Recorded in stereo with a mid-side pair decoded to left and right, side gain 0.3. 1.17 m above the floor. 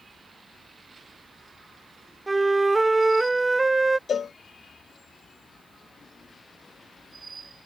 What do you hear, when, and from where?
2.3 s a flute: 30° right
4.1 s a cowbell: 65° left